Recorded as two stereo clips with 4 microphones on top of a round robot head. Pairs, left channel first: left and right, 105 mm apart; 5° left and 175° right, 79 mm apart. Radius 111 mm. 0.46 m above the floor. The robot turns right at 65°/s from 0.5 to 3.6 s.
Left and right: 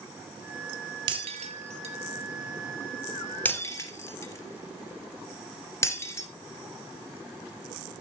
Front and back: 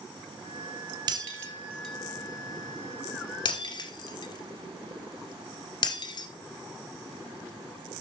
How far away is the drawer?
I don't hear a drawer.